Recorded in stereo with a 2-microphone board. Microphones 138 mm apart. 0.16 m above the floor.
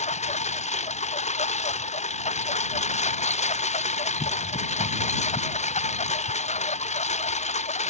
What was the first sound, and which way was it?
A lawn mower, 55° left (ahead or behind).